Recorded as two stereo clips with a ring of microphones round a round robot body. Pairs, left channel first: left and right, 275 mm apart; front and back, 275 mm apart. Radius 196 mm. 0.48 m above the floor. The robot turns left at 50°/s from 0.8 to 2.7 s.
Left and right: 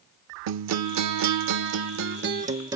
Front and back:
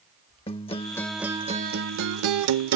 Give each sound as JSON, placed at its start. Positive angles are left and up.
{"t": 0.5, "sound": "a guitar", "azimuth_deg": -75}